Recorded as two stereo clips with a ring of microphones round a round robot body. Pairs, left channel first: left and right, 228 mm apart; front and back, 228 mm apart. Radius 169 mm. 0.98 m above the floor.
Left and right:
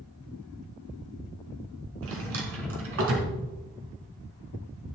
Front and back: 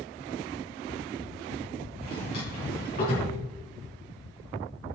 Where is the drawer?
70° right, 3 m.